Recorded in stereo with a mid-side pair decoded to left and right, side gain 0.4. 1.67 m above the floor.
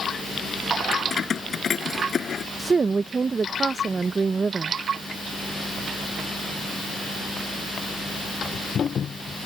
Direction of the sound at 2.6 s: 40° right.